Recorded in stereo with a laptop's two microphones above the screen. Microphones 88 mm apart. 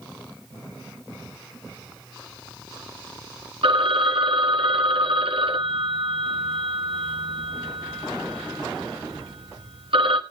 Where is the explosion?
I don't hear an explosion.